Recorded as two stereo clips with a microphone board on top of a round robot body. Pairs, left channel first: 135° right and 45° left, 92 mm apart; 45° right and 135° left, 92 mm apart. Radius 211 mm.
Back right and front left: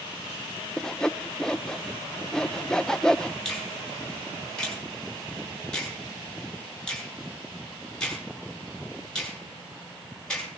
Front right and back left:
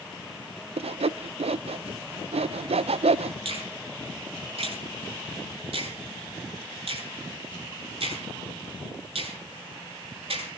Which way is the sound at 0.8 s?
140° left.